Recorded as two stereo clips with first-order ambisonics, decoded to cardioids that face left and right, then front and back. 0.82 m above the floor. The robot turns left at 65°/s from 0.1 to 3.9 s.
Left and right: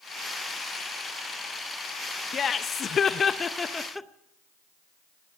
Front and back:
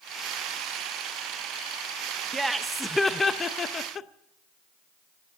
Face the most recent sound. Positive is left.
turn(degrees=15)